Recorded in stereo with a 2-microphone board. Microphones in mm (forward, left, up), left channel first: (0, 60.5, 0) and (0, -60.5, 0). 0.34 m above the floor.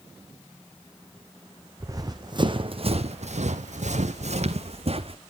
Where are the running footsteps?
25° right (ahead or behind), 1.5 m; by 5.2 s 50° right (ahead or behind), 1.7 m.